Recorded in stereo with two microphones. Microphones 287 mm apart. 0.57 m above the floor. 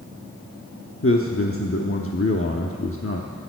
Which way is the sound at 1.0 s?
45° left (ahead or behind).